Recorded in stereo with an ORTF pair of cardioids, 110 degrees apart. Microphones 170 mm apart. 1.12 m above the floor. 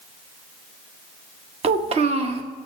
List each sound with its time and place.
1.6 s a child speaking: 40° right, 0.8 m